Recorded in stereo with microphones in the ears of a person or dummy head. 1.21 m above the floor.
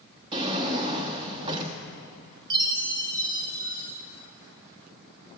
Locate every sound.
0.3 s a drawer: 30° right (ahead or behind), 1.0 m
2.5 s a chime: 25° right (ahead or behind), 2 m